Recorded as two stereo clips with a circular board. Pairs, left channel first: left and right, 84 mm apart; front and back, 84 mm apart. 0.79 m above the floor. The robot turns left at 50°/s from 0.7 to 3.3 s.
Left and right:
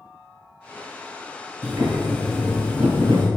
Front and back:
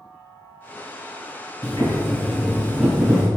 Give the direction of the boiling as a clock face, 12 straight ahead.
1 o'clock.